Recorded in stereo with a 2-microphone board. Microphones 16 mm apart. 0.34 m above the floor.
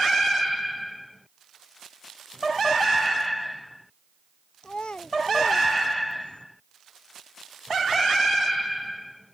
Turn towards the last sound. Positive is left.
turn(degrees=80)